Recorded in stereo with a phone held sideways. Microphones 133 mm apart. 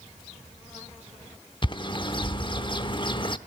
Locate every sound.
1.6 s a bird: 40° left (ahead or behind), 0.9 m